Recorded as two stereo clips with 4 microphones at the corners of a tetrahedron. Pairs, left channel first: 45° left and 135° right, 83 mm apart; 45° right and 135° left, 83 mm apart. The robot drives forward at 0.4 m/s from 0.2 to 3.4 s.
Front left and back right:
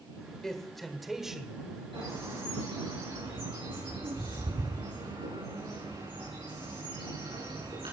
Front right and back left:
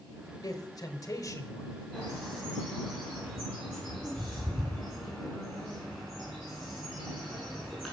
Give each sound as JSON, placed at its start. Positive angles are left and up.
{"t": 0.4, "sound": "a man speaking", "azimuth_deg": -40, "distance_m": 1.5}
{"t": 1.9, "sound": "a bird", "azimuth_deg": -140, "distance_m": 7.0}